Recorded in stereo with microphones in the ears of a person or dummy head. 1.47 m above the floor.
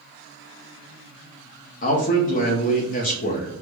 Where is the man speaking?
40° left (ahead or behind), 0.5 m.